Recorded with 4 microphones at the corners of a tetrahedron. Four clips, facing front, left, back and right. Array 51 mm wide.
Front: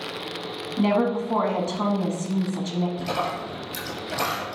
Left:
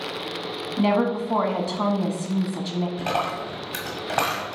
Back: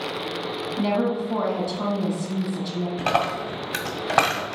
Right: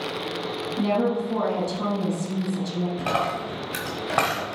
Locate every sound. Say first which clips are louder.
0.8 s a woman speaking: left 2 dB, front 2 dB; 50° left, 1.2 m
3.0 s a dropped coin: right 2 dB, back 4 dB; 170° right, 1.8 m